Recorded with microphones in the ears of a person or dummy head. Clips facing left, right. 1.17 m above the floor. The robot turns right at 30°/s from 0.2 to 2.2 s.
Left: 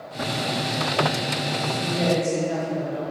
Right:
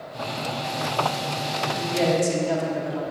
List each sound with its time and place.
1.7 s a woman speaking: 75° right (ahead or behind), 3 m; by 3.0 s 80° right, 3 m